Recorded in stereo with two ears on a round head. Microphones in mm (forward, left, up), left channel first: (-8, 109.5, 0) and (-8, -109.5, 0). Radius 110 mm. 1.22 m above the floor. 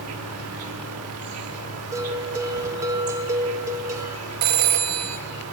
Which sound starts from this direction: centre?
A bell, at 1.9 s.